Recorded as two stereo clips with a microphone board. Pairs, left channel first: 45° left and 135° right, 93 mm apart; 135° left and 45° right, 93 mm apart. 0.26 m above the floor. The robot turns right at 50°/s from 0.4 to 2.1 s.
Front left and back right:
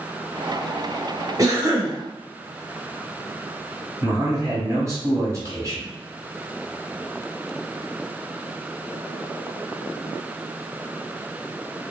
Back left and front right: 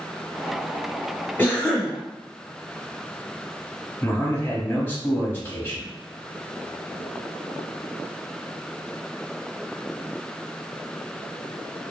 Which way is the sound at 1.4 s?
165° right.